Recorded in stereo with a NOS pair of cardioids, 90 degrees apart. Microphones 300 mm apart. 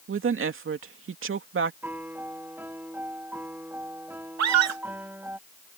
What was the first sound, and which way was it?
A woman speaking, 45° right.